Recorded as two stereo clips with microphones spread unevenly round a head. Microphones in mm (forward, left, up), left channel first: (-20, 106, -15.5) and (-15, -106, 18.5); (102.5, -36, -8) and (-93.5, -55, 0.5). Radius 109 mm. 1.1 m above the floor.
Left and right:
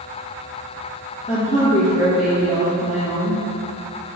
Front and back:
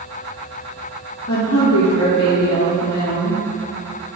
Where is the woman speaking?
30° left, 1.1 m.